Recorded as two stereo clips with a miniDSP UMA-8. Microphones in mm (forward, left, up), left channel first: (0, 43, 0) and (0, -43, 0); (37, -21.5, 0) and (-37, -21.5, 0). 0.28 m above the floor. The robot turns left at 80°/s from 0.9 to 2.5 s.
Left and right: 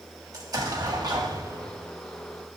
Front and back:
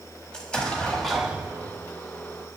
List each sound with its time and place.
0.3 s an explosion: 75° right, 1.3 m; by 1.8 s 145° right, 1.3 m